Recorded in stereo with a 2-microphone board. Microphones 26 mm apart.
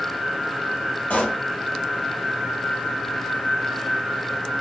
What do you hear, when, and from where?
1.1 s a pop: 60° left (ahead or behind), 1.8 m